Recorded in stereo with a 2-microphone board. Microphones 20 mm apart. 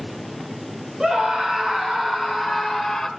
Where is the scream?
45° right (ahead or behind), 3 m; by 3.1 s centre (ahead or behind), 3.5 m.